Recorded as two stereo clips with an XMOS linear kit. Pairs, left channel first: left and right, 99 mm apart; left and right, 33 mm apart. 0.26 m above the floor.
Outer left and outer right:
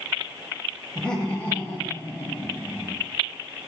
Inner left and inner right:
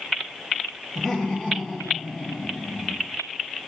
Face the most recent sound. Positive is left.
turn(degrees=30)  # may be behind; listen again after turning